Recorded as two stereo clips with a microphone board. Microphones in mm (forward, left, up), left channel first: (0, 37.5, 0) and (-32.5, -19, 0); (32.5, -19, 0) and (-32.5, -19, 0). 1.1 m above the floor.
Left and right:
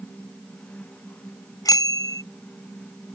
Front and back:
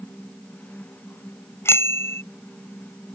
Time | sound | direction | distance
1.6 | a bicycle bell | 45° left | ?